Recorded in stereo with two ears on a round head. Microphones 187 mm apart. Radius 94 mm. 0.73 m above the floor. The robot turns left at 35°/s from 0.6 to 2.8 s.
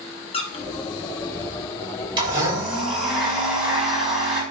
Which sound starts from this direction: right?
A blender, at 2.2 s.